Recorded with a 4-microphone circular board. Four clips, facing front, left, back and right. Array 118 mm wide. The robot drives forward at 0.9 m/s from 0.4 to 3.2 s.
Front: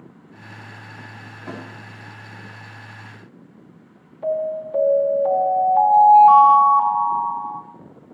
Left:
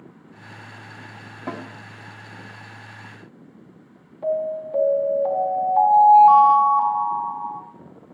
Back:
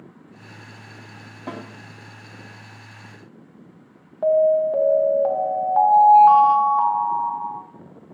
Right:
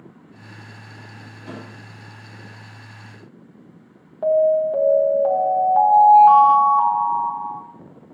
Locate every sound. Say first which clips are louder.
1.5 s a snare drum: left 5 dB, back 1 dB; 115° left, 3 m; by 1.6 s 120° left, 3 m
4.2 s an alarm: right 8 dB, back 7 dB; 140° right, 2.5 m